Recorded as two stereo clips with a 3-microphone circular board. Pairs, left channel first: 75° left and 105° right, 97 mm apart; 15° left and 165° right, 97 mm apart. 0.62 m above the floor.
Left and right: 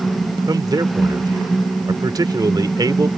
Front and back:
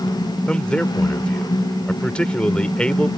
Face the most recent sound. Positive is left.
turn(degrees=-65)